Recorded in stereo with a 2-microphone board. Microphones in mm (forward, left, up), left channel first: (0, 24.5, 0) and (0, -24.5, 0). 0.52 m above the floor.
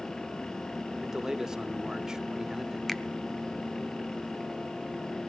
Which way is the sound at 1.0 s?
10° right (ahead or behind).